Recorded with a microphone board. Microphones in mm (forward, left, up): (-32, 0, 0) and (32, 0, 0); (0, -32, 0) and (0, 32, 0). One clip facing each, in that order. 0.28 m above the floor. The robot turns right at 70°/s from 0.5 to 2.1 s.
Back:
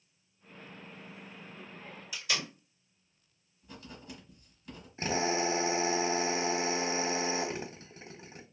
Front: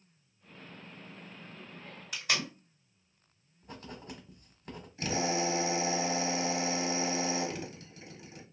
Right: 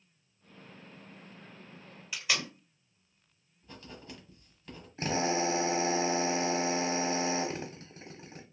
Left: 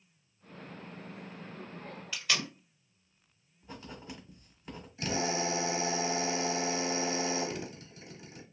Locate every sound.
2.1 s tape being pulled: 15° right, 2 m
3.6 s writing: 25° left, 1.1 m
5.0 s a drill: 130° right, 0.8 m